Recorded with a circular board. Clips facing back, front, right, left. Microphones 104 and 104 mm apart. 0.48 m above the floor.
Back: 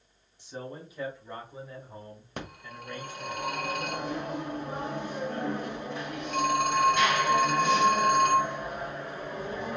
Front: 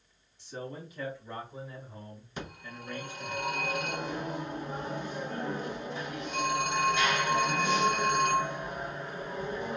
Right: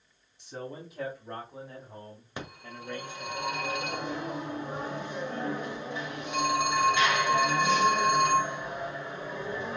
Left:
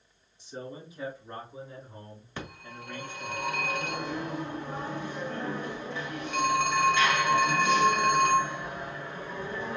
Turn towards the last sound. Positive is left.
turn(degrees=-160)